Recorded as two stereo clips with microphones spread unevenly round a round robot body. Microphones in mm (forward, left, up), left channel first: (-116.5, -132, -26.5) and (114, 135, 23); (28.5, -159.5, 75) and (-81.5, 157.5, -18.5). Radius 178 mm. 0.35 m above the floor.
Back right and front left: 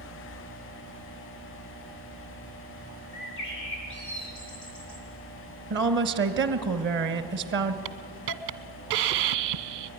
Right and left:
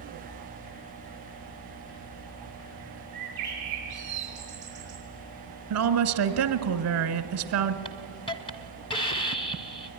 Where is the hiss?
15° left, 0.8 m.